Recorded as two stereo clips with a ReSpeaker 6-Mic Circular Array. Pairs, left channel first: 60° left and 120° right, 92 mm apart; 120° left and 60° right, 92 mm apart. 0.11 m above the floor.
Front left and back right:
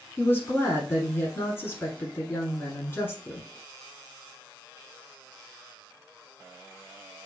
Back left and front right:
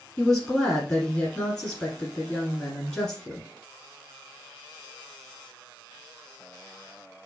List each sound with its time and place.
0.2 s a woman speaking: 50° left, 1.3 m